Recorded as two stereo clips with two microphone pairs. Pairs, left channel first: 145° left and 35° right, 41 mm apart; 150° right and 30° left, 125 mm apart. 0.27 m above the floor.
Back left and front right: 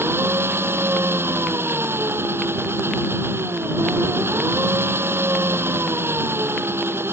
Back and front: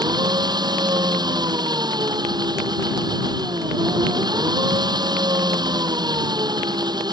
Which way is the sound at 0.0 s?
30° right.